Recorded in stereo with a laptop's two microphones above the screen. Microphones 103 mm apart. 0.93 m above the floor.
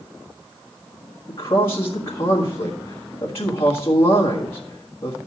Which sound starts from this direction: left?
A man speaking, at 1.3 s.